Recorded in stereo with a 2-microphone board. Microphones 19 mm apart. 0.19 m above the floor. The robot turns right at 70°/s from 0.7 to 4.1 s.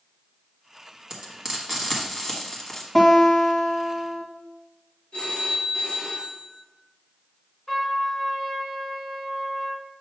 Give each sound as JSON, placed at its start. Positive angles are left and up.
{"t": 1.1, "sound": "frying", "side_deg": -30, "distance_m": 1.6}
{"t": 3.0, "sound": "a guitar", "azimuth_deg": 15, "distance_m": 2.0}
{"t": 5.1, "sound": "a phone ringing", "side_deg": 70, "distance_m": 2.0}
{"t": 7.7, "sound": "a trumpet", "side_deg": 30, "distance_m": 2.0}